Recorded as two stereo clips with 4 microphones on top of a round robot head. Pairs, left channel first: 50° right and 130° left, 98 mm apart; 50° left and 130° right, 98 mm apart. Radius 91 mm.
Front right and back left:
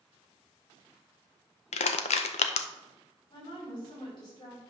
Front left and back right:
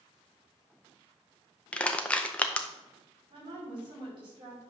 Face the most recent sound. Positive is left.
turn(degrees=-90)